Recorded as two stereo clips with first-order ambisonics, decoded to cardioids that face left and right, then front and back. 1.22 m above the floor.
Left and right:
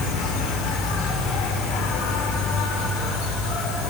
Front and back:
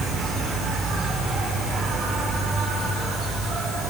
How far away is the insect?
About 3.5 m.